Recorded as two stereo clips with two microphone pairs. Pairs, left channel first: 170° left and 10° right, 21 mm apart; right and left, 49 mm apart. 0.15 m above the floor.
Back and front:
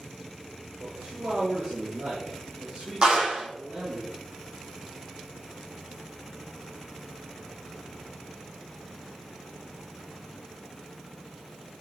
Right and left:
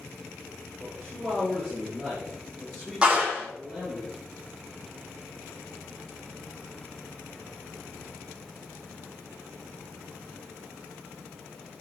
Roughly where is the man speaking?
Ahead.